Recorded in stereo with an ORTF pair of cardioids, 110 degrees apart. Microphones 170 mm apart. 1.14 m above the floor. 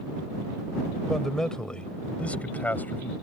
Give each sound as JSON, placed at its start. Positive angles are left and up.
{"t": 1.1, "sound": "a man speaking", "azimuth_deg": 0}